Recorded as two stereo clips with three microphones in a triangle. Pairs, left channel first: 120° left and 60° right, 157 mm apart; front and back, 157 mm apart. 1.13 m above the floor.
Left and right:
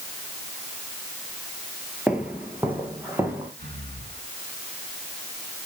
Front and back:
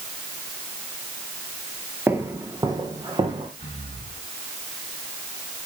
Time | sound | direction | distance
2.1 | footsteps | 130° right | 1.1 m
3.6 | breathing | 50° right | 3.5 m